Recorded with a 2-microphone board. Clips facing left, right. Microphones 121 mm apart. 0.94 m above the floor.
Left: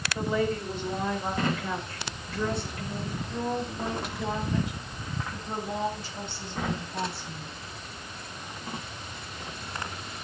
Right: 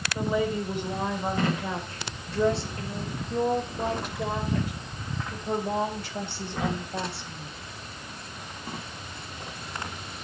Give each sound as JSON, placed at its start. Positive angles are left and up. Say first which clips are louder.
{"t": 0.1, "sound": "a woman speaking", "louder": "right 1 dB", "side_deg": -10, "distance_m": 4.5}